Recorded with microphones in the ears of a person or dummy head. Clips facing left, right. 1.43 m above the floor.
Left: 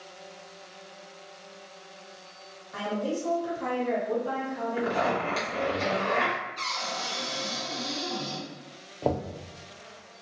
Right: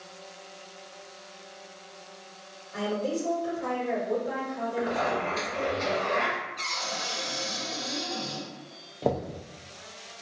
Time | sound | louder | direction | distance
2.7 | a woman speaking | right 1 dB | 60° left (ahead or behind) | 1.9 m
4.8 | a zipper | left 1 dB | 65° left (ahead or behind) | 1.4 m
6.6 | a cupboard door | left 1 dB | 65° left (ahead or behind) | 1.5 m
9.0 | knocking | even | 5° right (ahead or behind) | 0.5 m